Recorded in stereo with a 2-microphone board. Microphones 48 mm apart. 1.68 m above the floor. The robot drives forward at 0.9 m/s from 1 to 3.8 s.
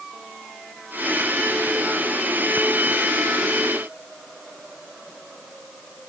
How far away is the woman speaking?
I don't hear a woman speaking.